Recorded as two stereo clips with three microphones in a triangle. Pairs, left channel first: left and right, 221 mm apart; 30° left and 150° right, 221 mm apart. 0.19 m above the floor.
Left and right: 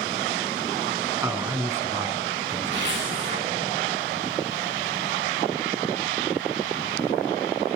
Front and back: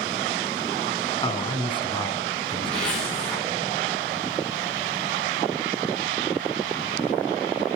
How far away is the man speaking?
About 1.5 m.